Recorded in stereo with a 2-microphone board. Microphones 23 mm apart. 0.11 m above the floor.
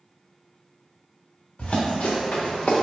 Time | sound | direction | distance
1.6 | running footsteps | 70° left (ahead or behind) | 1.2 m